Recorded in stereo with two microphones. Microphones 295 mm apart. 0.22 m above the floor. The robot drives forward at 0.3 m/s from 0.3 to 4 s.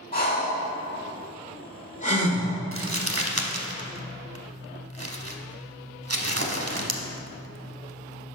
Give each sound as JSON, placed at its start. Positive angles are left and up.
{"t": 0.1, "sound": "breathing", "side_deg": 30, "distance_m": 1.4}
{"t": 2.7, "sound": "crumpling", "side_deg": -50, "distance_m": 0.6}